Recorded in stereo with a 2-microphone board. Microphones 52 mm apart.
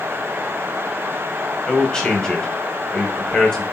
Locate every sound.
1.7 s a man speaking: 10° left (ahead or behind), 1.1 m